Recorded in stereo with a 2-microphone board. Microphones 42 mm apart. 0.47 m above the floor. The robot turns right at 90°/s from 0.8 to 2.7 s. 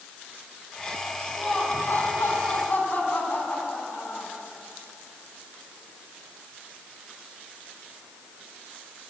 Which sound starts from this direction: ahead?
Laughter, at 1.4 s.